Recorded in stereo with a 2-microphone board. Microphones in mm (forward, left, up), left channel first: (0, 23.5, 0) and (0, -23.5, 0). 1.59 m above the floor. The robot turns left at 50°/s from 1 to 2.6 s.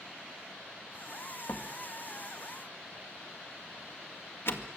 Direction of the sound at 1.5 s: 60° left (ahead or behind).